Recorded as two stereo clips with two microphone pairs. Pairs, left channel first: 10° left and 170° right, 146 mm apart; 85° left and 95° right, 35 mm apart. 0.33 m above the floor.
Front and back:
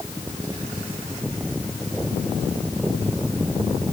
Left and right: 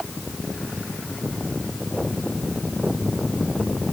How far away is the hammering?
No hammering in this recording.